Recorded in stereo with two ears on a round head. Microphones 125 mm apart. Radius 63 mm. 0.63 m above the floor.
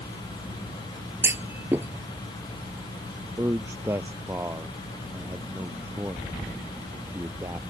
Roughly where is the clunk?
Centre.